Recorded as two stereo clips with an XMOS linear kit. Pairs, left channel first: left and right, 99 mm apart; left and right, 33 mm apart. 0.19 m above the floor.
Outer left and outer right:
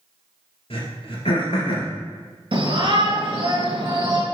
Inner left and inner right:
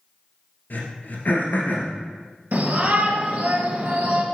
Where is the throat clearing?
70° left (ahead or behind), 2.5 m.